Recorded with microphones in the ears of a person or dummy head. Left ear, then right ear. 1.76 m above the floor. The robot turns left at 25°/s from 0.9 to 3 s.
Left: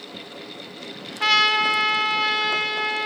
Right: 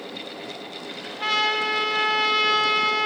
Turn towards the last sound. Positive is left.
turn(degrees=-15)